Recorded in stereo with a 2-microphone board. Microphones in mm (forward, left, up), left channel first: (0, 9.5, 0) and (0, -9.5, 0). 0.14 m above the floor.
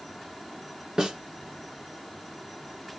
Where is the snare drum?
40° right (ahead or behind), 2.0 m.